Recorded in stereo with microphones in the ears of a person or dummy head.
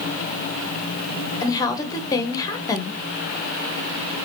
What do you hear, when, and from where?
1.4 s a woman speaking: 20° left (ahead or behind), 1.0 m